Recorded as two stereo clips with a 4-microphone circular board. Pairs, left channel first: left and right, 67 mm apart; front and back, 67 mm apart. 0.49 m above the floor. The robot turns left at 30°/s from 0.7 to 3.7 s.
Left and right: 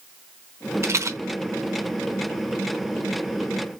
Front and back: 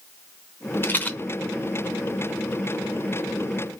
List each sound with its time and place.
0.8 s a rattle: 50° right, 0.8 m; by 1.2 s 60° right, 0.8 m